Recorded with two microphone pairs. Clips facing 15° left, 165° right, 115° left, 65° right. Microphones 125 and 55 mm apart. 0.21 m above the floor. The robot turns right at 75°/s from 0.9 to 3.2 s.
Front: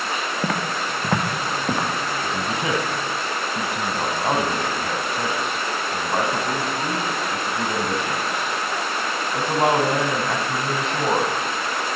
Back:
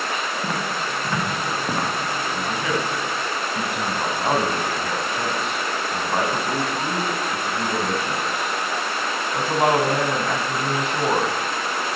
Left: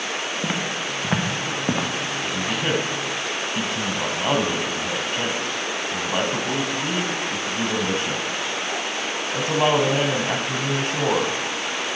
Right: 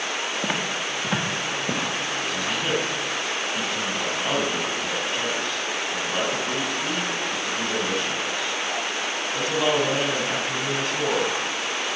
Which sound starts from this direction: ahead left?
A man speaking, at 2.2 s.